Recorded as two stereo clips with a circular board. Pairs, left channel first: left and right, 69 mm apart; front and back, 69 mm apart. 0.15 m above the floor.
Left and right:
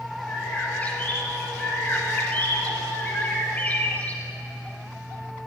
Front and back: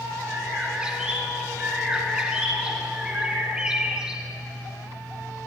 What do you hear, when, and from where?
0.3 s a bird: 120° left, 1.6 m